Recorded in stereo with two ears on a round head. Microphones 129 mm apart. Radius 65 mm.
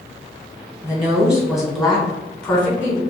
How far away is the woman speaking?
About 1.8 m.